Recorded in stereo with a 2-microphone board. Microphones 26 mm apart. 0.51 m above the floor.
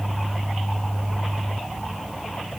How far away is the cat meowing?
No cat meowing in this recording.